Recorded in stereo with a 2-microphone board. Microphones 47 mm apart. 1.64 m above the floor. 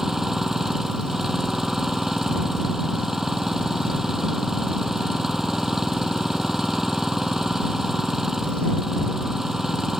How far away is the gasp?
No gasp in this recording.